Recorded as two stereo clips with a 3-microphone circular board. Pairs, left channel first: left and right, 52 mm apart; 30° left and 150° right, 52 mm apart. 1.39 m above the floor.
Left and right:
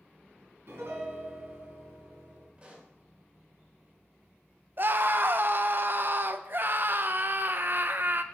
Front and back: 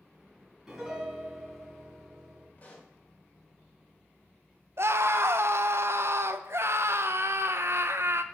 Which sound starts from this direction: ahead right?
A pop, at 2.6 s.